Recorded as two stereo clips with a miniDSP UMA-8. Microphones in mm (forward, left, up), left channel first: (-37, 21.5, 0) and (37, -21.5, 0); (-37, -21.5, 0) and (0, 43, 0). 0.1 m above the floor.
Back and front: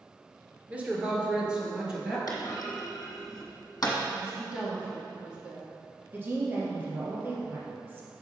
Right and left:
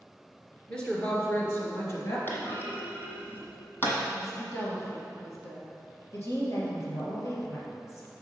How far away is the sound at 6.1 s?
About 2.5 m.